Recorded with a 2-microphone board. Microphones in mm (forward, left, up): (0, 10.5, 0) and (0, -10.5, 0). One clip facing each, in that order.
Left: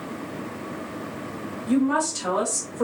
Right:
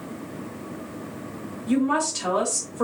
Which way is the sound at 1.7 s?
15° right (ahead or behind).